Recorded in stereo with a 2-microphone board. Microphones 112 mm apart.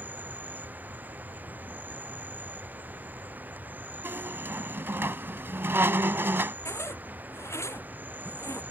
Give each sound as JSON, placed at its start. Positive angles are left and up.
{"t": 0.0, "sound": "an insect", "side_deg": -15}
{"t": 4.0, "sound": "a squeak", "side_deg": -20}
{"t": 6.7, "sound": "a zipper", "side_deg": 25}